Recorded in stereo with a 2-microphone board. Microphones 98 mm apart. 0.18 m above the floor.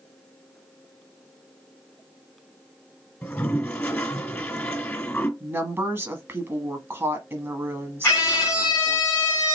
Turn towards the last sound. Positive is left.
turn(degrees=25)  # may be behind; listen again after turning